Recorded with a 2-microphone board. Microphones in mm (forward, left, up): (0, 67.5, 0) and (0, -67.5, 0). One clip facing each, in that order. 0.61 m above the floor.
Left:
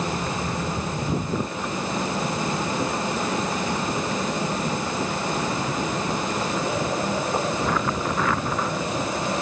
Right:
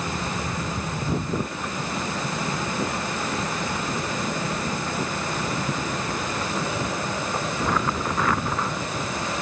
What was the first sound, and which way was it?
Only background noise.